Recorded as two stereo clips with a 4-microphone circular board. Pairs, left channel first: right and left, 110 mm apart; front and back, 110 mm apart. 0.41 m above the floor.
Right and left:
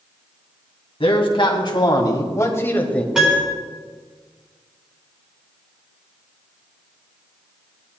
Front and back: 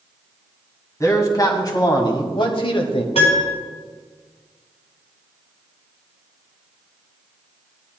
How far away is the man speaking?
About 3 m.